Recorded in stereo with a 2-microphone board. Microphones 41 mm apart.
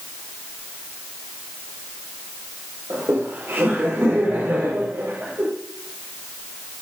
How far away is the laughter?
About 7 m.